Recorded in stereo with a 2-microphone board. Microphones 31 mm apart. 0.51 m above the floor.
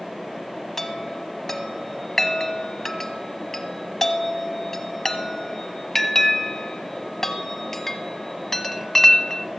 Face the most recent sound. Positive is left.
turn(degrees=10)  # may be behind; listen again after turning